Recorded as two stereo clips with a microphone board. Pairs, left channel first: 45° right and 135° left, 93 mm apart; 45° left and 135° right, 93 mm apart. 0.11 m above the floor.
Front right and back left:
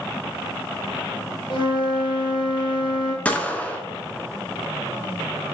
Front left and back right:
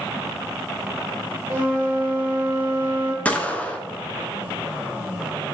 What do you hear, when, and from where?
1.5 s a flute: 65° right, 0.9 m
3.2 s a gunshot: straight ahead, 0.6 m